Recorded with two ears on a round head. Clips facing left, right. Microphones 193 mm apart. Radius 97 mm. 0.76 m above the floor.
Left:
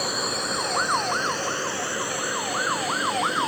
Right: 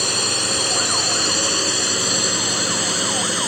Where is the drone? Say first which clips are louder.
Right 3 dB; 40° right (ahead or behind); by 3.5 s 65° right (ahead or behind).